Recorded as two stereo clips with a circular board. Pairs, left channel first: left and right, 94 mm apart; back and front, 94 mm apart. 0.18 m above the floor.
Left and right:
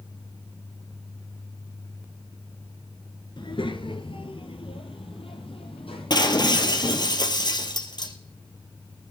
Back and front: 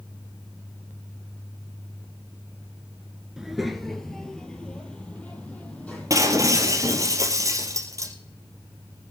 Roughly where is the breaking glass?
Ahead left.